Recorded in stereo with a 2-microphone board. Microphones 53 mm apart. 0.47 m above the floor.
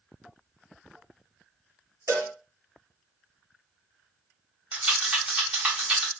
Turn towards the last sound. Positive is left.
turn(degrees=-20)  # may be behind; listen again after turning